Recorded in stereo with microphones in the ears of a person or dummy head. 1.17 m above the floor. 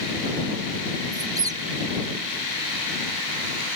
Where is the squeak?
15° right (ahead or behind).